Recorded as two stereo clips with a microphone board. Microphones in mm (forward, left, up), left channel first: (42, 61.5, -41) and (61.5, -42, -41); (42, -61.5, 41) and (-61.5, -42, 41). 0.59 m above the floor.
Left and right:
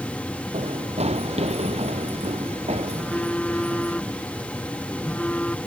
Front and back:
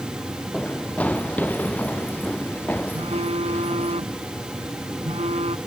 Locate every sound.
0.5 s running footsteps: 90° right; by 3.9 s 85° right
2.9 s a phone buzzing: straight behind